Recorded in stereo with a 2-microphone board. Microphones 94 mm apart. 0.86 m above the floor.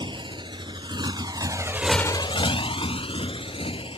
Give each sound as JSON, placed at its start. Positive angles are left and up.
{"t": 0.0, "sound": "a motorcycle", "side_deg": -65}